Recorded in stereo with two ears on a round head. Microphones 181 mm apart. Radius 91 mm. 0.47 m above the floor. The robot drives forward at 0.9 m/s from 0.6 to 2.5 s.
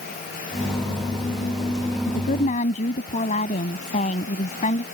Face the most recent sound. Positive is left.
turn(degrees=40)  # may be behind; listen again after turning